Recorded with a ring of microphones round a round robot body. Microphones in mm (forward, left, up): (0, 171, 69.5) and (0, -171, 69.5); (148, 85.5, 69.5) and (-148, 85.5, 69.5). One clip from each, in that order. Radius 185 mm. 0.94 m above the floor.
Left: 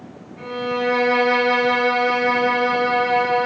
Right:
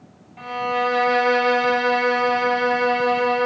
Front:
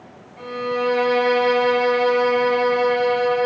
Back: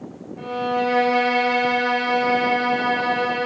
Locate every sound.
0.4 s a violin: 75° right, 3.5 m